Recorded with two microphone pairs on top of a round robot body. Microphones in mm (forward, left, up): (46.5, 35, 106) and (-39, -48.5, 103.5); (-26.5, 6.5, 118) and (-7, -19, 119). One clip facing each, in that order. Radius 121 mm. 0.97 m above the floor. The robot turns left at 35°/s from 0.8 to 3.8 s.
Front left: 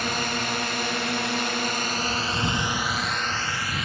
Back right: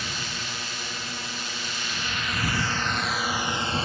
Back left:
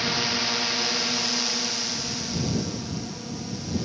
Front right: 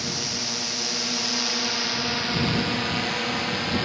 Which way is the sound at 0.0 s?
70° left.